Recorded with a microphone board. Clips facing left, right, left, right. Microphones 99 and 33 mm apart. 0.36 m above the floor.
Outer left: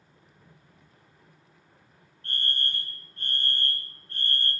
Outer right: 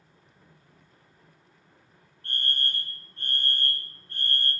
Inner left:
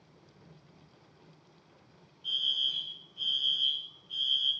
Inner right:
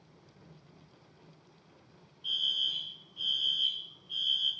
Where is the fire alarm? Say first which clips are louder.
Even, inner left 1 dB; 20° right (ahead or behind), 2.5 m.